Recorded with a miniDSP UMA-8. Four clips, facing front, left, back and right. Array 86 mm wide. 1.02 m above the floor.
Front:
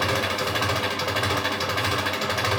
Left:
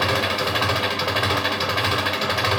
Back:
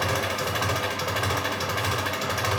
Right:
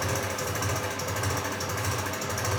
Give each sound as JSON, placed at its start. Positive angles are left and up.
{"t": 0.0, "sound": "an engine running", "azimuth_deg": 85, "distance_m": 0.9}